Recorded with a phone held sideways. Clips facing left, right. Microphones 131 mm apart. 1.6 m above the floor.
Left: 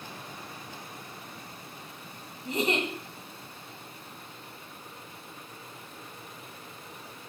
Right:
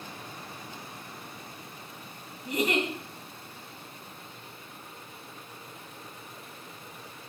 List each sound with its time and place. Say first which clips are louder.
2.5 s a giggle: right 1 dB; 30° left (ahead or behind), 2 m